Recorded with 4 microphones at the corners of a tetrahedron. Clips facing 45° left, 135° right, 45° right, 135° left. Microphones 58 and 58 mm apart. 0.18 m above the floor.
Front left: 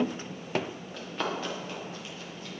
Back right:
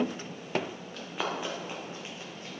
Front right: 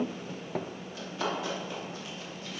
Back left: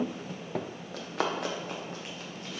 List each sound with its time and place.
0.9 s running footsteps: 135° left, 2.5 m; by 2.5 s 175° left, 3.5 m